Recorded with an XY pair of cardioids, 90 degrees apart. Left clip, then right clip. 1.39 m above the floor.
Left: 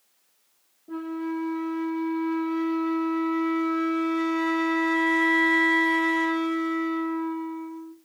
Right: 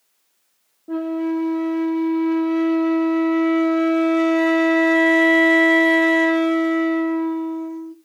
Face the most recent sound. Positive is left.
turn(degrees=-65)